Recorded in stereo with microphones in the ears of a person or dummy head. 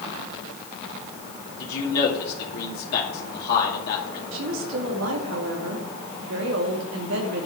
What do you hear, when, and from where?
1.6 s a man speaking: 50° left (ahead or behind), 2.5 m
4.3 s a woman speaking: 70° right (ahead or behind), 2 m